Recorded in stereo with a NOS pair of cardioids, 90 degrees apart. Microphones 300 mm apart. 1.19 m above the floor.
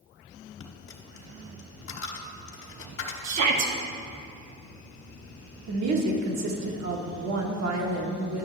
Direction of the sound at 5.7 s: 65° right.